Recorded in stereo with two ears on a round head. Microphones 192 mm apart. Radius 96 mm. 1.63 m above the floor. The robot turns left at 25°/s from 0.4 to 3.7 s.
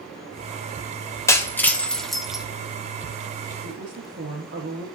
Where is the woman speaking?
50° right (ahead or behind), 1.6 m.